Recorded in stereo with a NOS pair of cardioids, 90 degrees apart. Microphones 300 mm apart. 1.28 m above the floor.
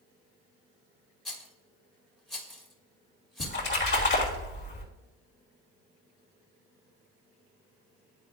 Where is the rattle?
Straight ahead, 1.5 m.